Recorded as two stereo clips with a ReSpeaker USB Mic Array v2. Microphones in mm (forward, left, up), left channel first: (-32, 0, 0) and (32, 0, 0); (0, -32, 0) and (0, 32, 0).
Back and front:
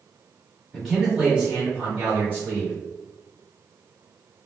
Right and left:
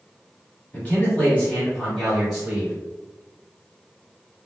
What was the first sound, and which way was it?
A man speaking, 100° right.